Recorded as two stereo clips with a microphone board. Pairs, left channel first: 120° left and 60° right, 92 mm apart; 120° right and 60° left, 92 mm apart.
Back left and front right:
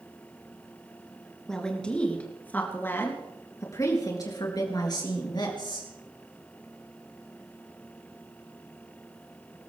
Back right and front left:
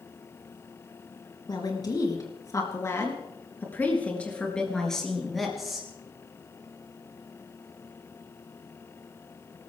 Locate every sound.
1.5 s a woman speaking: 155° right, 4 m; by 5.9 s 145° left, 4.5 m